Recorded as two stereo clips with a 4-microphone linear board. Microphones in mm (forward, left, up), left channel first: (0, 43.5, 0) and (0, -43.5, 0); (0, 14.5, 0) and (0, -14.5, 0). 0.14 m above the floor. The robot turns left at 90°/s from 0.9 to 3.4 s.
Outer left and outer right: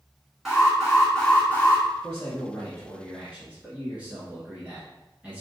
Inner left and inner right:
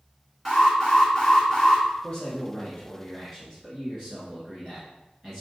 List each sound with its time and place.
0.5 s an alarm: 5° right (ahead or behind), 1.5 m; by 1.9 s 30° left (ahead or behind), 1.5 m
2.0 s a man speaking: 100° left, 1.5 m; by 5.4 s 25° right, 1.5 m